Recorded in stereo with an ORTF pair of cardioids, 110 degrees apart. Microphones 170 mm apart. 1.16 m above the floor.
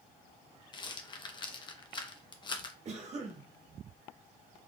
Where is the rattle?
25° left, 0.7 m.